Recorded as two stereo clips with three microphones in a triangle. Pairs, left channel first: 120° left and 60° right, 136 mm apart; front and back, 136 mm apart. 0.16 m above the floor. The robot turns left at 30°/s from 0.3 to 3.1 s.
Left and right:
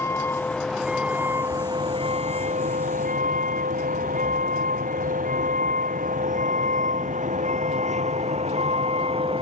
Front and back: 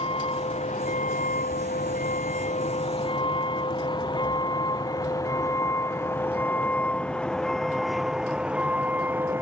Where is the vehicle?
45° left; by 9.4 s 105° right.